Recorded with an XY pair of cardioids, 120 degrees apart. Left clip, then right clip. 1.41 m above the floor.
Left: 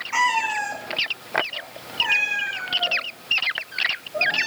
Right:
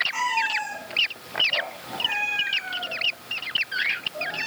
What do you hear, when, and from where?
0.1 s a cat meowing: 50° left, 2.5 m